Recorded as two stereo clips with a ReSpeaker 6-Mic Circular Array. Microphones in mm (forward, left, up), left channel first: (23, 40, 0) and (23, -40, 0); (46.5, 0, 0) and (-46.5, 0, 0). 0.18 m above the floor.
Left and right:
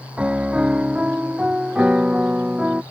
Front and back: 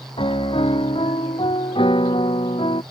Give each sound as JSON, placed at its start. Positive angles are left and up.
{"t": 0.2, "sound": "a piano", "azimuth_deg": -15}